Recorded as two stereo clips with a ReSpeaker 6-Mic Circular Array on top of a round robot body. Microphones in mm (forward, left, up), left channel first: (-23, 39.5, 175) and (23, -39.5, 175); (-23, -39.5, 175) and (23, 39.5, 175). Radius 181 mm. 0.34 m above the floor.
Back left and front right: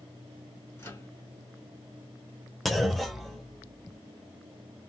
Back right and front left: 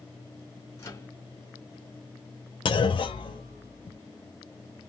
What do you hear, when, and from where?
0.8 s a microwave: 175° right, 2.5 m
2.6 s a clunk: 150° right, 0.5 m